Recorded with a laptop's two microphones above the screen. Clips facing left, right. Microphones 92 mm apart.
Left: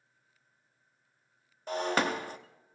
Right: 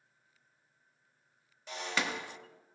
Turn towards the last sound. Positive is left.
turn(degrees=45)  # may be behind; listen again after turning